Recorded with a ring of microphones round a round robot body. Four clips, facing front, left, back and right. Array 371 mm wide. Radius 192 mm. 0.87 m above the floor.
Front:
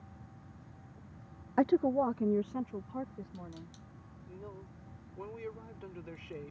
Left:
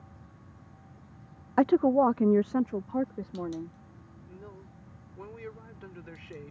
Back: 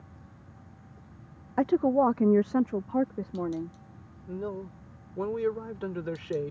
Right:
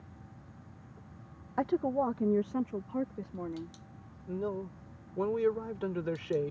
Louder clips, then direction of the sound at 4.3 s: Right 14 dB, back 14 dB; 140° right.